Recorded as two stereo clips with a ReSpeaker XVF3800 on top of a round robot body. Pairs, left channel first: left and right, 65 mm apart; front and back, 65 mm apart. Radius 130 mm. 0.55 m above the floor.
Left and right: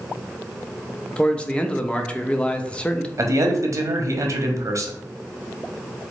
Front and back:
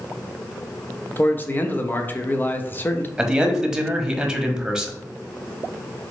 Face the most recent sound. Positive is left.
turn(degrees=-100)